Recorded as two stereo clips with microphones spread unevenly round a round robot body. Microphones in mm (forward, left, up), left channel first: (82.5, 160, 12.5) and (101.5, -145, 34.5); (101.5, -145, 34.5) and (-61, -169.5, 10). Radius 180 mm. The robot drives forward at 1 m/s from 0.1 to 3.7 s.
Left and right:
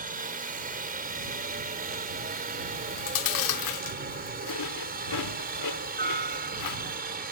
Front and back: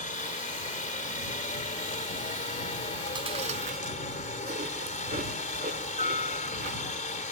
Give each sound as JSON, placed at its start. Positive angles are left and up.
{"t": 0.0, "sound": "a helicopter", "azimuth_deg": -25}
{"t": 2.7, "sound": "chewing", "azimuth_deg": 100}